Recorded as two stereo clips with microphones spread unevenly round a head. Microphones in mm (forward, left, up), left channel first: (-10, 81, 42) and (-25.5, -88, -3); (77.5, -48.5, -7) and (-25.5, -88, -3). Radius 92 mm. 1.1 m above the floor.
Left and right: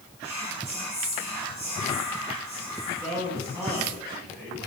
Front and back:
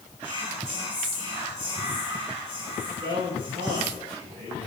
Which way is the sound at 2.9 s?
155° right.